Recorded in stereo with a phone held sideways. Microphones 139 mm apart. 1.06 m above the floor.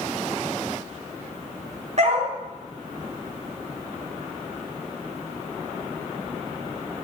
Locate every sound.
2.0 s a dog barking: 55° right (ahead or behind), 4 m